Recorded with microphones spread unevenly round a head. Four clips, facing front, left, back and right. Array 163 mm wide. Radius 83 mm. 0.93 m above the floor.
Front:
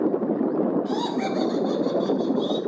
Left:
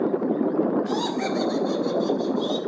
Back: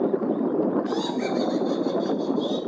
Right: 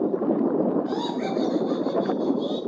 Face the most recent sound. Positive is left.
turn(degrees=45)